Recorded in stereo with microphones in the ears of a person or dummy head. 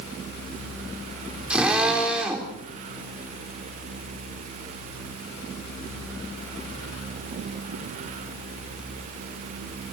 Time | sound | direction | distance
1.5 | a drill | 5° right (ahead or behind) | 4.5 m